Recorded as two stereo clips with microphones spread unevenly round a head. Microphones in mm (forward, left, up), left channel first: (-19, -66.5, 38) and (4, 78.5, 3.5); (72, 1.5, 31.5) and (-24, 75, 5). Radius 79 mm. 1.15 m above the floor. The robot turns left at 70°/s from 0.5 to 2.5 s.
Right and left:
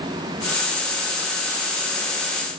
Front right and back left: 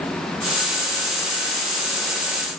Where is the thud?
I don't hear a thud.